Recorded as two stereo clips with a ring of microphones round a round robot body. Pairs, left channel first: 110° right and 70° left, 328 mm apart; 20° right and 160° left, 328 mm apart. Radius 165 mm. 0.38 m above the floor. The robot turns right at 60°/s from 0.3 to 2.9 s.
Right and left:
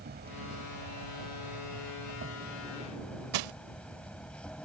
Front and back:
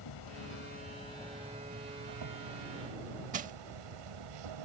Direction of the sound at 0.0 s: 5° left.